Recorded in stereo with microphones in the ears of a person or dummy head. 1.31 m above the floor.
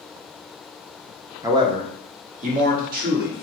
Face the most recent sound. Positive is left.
turn(degrees=-55)  # may be behind; listen again after turning